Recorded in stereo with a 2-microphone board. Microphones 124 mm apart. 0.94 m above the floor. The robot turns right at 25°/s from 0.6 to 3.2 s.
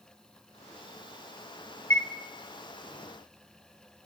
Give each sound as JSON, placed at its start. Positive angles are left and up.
{"t": 1.9, "sound": "a chime", "side_deg": 20, "distance_m": 0.8}